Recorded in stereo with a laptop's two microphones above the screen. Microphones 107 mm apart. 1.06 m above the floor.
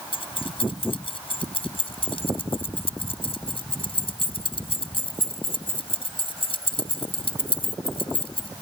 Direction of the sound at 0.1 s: 55° left (ahead or behind).